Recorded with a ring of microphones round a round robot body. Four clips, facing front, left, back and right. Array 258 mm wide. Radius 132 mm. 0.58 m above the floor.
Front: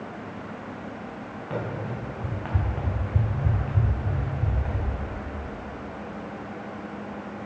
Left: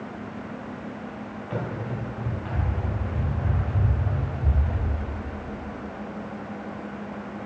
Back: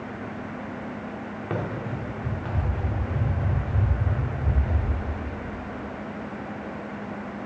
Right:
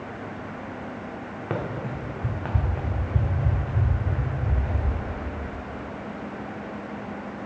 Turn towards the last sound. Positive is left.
turn(degrees=-15)